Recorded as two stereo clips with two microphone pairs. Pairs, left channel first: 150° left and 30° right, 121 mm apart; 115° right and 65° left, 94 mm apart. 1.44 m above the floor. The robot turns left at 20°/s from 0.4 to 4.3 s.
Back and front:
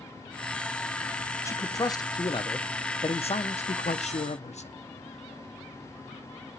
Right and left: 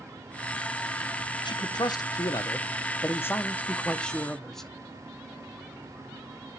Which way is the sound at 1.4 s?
145° right.